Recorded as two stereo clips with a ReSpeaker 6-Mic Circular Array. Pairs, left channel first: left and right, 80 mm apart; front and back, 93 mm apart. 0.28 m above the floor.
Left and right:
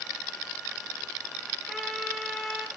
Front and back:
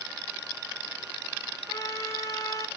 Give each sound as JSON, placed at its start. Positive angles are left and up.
{"t": 1.7, "sound": "a trumpet", "azimuth_deg": 0, "distance_m": 0.6}